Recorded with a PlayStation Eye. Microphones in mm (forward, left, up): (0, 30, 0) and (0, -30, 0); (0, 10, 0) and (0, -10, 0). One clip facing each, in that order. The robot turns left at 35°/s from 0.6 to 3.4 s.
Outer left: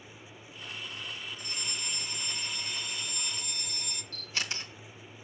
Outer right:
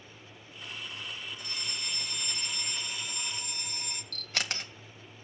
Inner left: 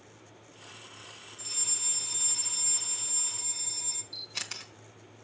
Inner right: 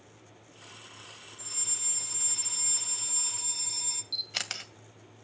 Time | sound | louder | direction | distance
1.4 | a fire alarm | even, inner left 4 dB | 30° left | 3 m
4.1 | a camera shutter | outer right 1 dB, inner right 5 dB | 60° right (ahead or behind) | 2.0 m